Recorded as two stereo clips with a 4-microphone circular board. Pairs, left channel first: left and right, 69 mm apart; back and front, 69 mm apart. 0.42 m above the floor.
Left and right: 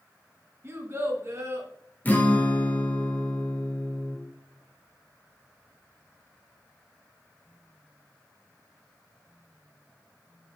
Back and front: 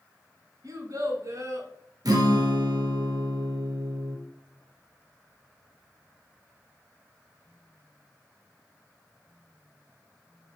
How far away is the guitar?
About 1.6 m.